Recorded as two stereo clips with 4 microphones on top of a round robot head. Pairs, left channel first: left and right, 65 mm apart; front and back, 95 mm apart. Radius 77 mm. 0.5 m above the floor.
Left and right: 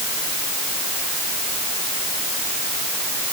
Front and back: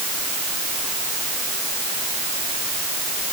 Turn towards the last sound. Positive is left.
No sound to turn to.